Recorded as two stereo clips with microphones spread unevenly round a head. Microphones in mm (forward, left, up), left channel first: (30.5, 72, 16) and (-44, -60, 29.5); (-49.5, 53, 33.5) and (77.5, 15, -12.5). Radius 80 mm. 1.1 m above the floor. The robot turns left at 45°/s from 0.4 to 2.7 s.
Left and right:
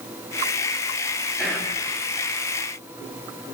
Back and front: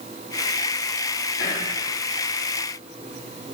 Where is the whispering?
150° left, 3 m; by 1.8 s 135° left, 3 m.